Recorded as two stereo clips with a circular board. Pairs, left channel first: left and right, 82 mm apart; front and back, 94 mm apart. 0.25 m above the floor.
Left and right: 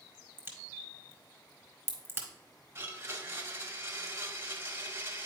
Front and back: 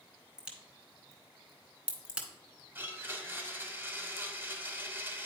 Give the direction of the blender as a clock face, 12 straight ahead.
4 o'clock.